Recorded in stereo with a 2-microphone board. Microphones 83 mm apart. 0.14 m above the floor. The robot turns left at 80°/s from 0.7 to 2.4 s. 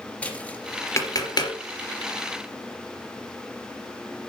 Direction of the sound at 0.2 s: 15° left (ahead or behind).